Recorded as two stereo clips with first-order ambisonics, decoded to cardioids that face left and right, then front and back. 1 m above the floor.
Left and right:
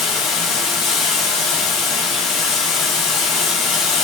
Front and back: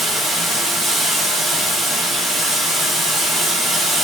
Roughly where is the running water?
Left.